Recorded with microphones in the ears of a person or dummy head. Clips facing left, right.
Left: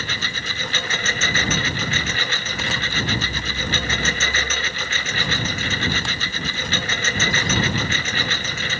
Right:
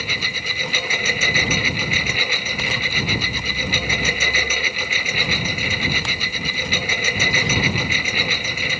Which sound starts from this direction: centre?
A lawn mower, at 0.0 s.